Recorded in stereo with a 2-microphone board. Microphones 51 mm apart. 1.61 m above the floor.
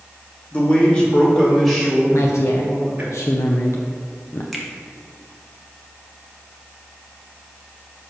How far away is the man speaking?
About 2.5 m.